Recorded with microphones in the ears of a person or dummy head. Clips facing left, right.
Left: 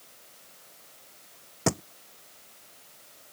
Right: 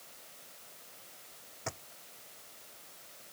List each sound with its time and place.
1.7 s a thud: 80° left